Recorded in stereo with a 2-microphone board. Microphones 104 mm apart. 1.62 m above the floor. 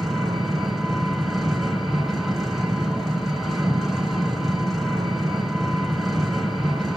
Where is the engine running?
5° left (ahead or behind), 3 m.